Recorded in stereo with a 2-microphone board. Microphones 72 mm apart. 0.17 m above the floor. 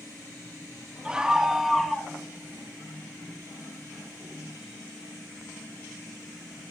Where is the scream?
15° right (ahead or behind), 1.7 m; by 2.1 s 5° left (ahead or behind), 1.7 m.